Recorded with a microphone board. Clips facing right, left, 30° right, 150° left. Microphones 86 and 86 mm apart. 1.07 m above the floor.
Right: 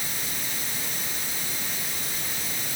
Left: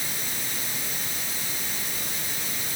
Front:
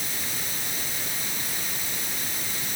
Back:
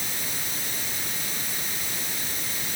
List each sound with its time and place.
Only background noise.